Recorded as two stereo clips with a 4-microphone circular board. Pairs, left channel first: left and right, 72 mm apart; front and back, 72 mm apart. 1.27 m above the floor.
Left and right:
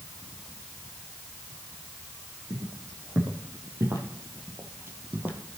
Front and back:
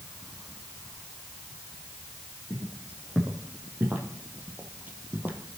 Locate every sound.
2.5 s footsteps: 120° right, 3 m; by 5.4 s 135° right, 1.6 m